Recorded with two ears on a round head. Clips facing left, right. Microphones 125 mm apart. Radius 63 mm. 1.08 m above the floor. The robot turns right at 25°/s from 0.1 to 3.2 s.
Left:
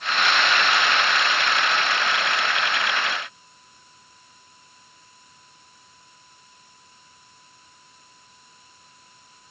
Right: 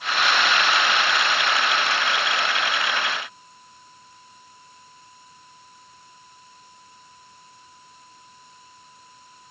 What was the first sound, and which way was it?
Only background noise.